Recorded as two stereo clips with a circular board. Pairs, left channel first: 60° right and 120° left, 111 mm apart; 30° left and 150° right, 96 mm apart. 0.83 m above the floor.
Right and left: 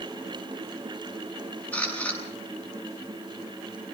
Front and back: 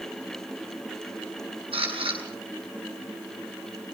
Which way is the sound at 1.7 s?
135° right.